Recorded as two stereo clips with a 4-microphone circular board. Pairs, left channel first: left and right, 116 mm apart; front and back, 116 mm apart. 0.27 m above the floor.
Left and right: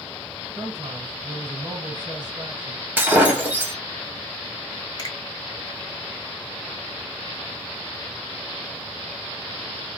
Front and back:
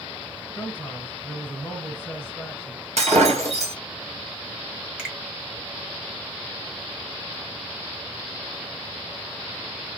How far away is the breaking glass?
About 1.7 m.